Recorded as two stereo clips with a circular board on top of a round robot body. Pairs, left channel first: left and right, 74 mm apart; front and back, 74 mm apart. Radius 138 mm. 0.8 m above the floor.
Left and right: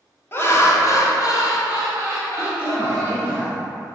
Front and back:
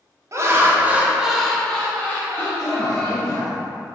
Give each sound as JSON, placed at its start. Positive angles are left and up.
{"t": 0.3, "sound": "laughter", "azimuth_deg": 145, "distance_m": 0.8}
{"t": 2.4, "sound": "a man speaking", "azimuth_deg": 30, "distance_m": 1.8}